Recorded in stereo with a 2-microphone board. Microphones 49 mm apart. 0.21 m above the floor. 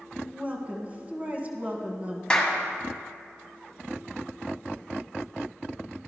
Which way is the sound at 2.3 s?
20° left (ahead or behind).